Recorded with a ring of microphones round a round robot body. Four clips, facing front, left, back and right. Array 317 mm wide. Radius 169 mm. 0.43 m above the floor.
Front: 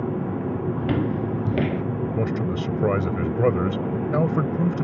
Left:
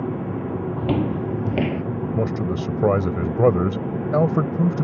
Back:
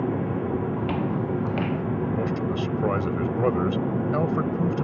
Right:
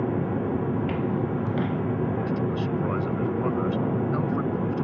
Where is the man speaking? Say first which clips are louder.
Left 3 dB, front 1 dB; 70° left.